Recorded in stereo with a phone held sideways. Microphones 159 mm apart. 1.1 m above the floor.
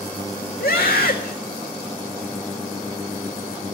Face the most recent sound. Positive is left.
turn(degrees=80)